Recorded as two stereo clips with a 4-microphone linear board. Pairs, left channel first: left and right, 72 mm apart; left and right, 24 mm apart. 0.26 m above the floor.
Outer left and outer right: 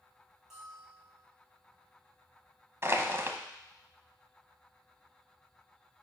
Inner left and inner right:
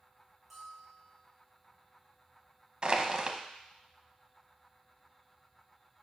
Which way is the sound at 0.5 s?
10° right (ahead or behind).